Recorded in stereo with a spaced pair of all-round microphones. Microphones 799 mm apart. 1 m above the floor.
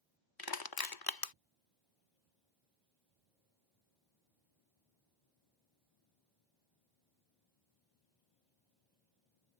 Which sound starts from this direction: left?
Crushing, at 0.4 s.